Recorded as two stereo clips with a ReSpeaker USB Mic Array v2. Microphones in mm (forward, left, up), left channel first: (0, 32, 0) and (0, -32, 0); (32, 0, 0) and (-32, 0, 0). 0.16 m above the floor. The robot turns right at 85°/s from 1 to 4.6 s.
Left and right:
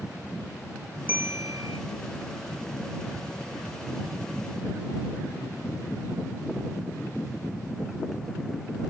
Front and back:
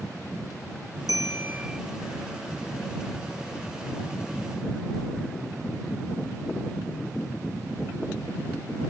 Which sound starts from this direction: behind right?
A bell, at 1.1 s.